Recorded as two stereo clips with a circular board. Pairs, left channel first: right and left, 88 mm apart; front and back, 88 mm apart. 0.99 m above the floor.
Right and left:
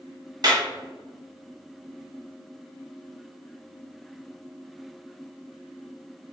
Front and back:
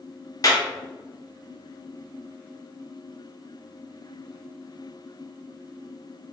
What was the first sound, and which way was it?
A clap, 50° left.